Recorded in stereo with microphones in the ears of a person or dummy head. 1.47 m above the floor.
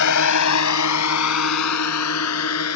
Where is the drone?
70° left (ahead or behind); by 2.8 s 80° left.